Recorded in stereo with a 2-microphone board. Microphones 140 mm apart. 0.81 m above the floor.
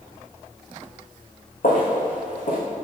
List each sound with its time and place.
1.6 s footsteps: 65° left (ahead or behind), 2.5 m